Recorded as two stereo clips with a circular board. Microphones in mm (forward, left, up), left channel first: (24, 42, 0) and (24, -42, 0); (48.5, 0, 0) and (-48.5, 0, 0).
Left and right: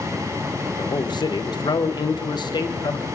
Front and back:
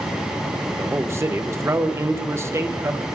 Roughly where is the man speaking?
Behind left.